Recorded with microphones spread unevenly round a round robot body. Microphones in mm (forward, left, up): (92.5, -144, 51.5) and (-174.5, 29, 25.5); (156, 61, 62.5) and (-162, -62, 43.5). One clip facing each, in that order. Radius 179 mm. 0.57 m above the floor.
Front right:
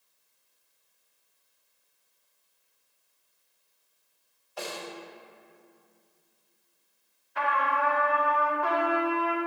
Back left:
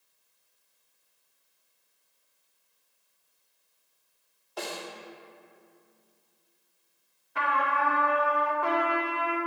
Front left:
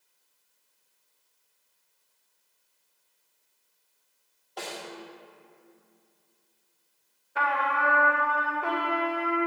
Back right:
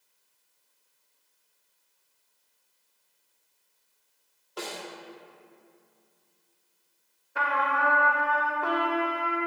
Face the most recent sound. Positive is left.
turn(degrees=110)